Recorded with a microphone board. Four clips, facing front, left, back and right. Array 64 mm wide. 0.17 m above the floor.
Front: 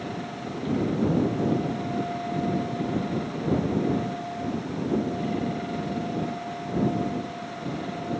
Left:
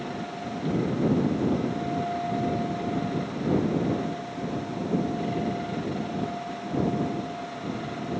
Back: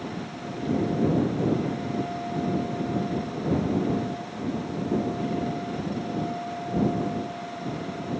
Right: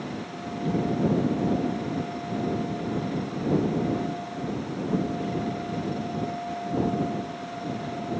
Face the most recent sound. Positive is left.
No sound to turn to.